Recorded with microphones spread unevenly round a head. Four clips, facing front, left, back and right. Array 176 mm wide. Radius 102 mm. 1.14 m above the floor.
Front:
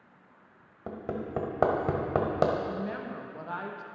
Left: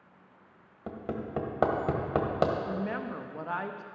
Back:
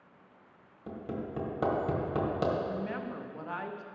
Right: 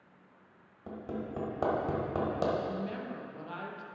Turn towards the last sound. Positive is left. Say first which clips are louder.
# left 3 dB, front 1 dB
turn(degrees=75)